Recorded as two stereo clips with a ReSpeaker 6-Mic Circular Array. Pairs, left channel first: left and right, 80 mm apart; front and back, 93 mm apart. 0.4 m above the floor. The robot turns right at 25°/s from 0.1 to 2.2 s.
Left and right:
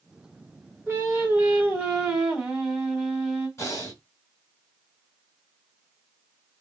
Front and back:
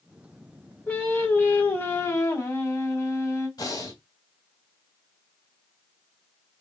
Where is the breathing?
40° left, 2 m.